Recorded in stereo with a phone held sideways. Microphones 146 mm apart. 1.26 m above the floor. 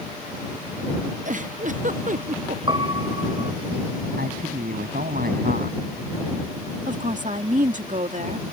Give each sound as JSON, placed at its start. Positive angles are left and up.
{"t": 1.2, "sound": "a giggle", "side_deg": -55}
{"t": 2.7, "sound": "a piano", "side_deg": -30}
{"t": 4.2, "sound": "a man speaking", "side_deg": -70}
{"t": 6.9, "sound": "a woman speaking", "side_deg": -55}